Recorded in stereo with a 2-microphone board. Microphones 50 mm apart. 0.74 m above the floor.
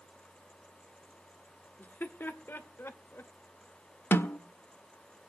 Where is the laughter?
40° left (ahead or behind), 1.7 m; by 3.3 s 55° left (ahead or behind), 2.5 m.